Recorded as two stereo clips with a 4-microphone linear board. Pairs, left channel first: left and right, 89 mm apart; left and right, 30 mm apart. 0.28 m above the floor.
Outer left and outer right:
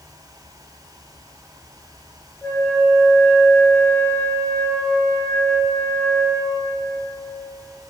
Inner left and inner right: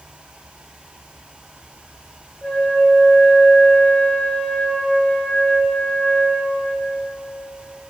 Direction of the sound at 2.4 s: 20° left (ahead or behind).